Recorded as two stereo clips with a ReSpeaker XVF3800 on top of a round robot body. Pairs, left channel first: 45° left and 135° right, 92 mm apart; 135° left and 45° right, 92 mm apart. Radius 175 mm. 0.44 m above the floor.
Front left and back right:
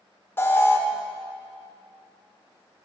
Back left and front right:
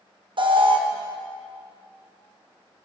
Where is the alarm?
20° right, 1.7 m.